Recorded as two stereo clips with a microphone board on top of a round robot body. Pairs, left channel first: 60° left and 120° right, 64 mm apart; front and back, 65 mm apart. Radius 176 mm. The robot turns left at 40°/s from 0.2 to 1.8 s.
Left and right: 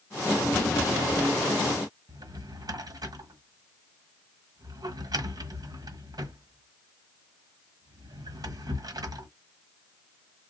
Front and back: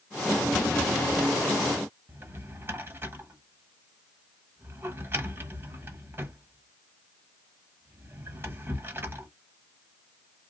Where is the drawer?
125° right, 1.3 m.